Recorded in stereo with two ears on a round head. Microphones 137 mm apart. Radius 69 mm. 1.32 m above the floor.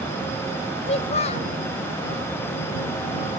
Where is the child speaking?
45° left (ahead or behind).